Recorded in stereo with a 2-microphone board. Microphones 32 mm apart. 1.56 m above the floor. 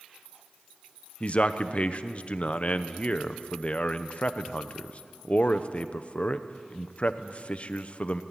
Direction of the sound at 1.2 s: 40° left (ahead or behind).